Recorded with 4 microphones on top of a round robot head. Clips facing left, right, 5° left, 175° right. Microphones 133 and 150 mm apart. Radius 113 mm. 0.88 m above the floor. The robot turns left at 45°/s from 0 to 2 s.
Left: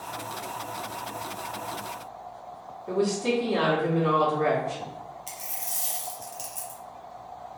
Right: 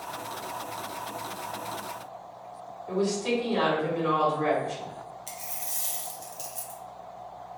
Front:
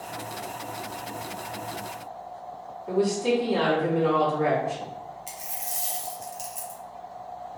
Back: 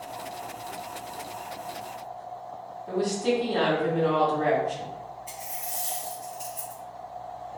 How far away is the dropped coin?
About 0.6 m.